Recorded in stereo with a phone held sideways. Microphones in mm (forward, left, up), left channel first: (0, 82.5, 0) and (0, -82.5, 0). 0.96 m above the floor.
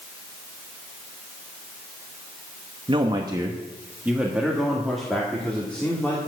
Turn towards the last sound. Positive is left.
turn(degrees=10)  # may be behind; listen again after turning